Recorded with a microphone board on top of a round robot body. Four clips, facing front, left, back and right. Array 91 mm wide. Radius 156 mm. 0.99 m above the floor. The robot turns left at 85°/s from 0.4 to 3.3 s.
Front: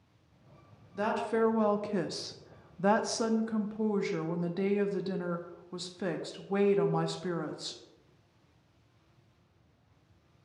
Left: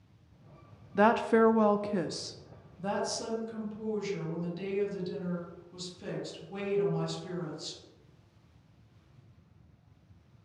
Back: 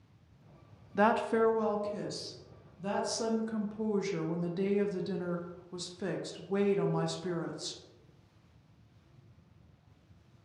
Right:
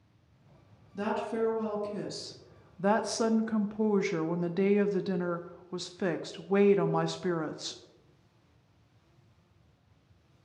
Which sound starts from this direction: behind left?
A woman speaking, at 0.9 s.